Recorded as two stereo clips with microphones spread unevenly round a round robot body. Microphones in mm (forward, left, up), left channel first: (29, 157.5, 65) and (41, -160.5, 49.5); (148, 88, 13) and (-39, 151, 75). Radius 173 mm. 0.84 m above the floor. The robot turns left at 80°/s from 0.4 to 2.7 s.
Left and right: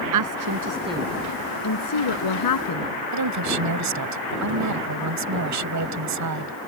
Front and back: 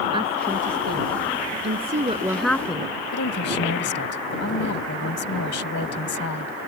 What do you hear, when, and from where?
0.1 s a woman speaking: 125° right; by 2.9 s 50° left
3.1 s a woman speaking: 55° right